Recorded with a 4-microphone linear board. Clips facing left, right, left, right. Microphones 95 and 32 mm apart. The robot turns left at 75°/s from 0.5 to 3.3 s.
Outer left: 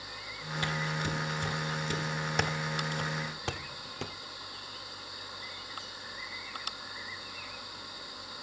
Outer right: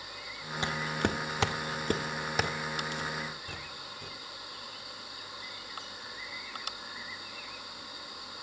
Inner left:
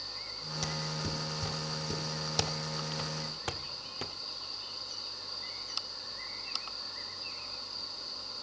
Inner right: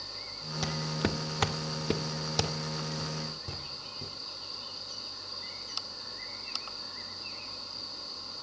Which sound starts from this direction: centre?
Footsteps, at 0.6 s.